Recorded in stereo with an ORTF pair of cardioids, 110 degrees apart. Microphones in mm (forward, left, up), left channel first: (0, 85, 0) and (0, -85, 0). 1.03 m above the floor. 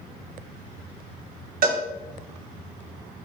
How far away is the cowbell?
About 1.4 m.